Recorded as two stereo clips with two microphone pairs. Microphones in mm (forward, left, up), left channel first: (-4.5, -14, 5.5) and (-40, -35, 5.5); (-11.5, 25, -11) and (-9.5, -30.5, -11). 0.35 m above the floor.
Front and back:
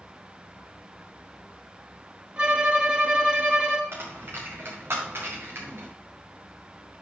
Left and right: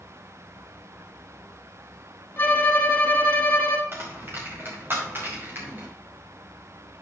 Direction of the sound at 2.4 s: 145° left.